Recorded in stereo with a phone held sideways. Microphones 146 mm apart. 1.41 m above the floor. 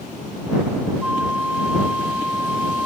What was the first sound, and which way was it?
A flute, 10° right (ahead or behind).